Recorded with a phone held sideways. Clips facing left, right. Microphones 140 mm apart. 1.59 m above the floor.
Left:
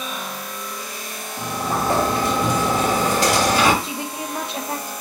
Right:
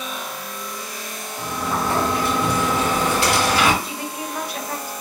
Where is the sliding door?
40° left (ahead or behind), 1.5 m.